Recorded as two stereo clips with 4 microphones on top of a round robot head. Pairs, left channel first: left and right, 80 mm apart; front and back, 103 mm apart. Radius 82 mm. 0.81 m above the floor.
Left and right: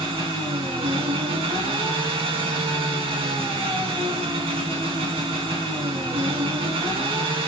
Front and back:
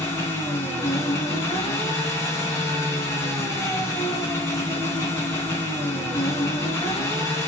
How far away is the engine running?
About 3.5 m.